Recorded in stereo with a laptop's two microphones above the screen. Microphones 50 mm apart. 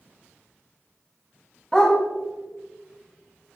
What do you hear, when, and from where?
1.7 s a dog barking: 10° left (ahead or behind), 3 m